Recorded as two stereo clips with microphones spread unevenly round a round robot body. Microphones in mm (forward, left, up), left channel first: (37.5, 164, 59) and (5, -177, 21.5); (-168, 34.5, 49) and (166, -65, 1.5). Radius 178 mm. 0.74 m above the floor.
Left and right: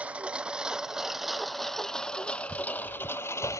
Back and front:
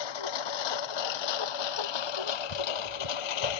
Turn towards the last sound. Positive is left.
turn(degrees=165)